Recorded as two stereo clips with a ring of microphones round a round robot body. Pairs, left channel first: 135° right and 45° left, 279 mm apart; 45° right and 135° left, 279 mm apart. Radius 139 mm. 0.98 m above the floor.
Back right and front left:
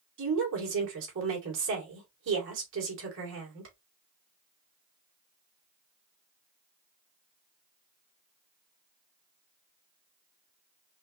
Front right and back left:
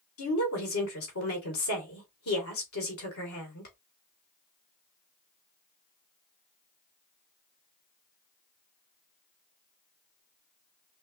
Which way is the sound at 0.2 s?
5° right.